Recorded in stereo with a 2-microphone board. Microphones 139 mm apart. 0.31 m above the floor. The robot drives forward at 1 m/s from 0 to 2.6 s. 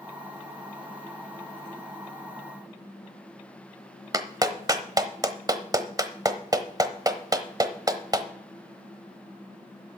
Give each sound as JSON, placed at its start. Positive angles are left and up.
{"t": 4.1, "sound": "a clap", "side_deg": -25, "distance_m": 0.9}